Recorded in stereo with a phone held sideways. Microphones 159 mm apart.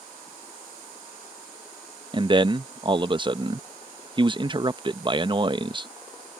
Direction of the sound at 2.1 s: 30° right (ahead or behind).